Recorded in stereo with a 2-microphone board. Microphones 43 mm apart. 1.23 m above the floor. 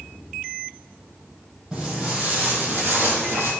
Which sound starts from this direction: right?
Footsteps, at 1.7 s.